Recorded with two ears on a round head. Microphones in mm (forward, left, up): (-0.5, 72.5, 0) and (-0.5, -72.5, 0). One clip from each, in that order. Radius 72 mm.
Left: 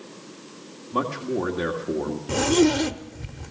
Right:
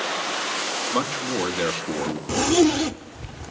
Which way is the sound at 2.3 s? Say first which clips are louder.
Right 1 dB; 20° right (ahead or behind).